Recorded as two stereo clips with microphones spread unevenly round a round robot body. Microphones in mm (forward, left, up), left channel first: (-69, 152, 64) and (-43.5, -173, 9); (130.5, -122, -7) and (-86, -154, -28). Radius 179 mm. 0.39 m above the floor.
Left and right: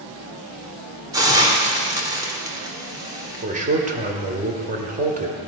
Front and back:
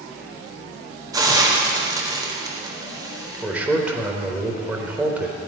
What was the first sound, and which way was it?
A hiss, 130° right.